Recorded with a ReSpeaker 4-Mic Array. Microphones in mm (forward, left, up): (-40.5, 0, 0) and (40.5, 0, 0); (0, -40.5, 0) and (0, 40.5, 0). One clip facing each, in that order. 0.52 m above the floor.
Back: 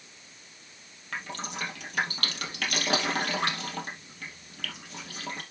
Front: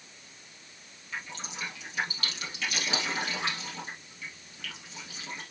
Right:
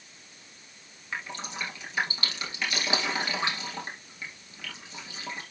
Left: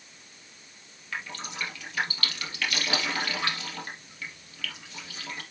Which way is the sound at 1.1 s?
160° right.